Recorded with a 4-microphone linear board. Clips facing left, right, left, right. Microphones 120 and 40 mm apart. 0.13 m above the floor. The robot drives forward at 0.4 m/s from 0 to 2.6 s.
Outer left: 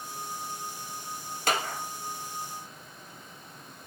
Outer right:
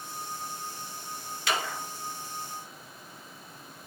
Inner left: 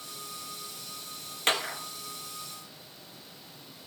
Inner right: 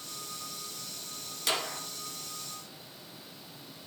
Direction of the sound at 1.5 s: 45° left (ahead or behind).